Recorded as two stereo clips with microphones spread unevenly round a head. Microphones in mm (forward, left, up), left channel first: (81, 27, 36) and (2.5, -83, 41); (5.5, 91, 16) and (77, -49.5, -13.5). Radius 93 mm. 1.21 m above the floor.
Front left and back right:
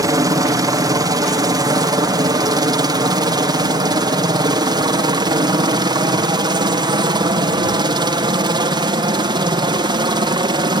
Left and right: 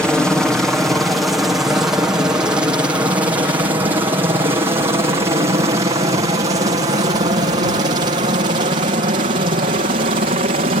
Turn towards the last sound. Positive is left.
turn(degrees=-85)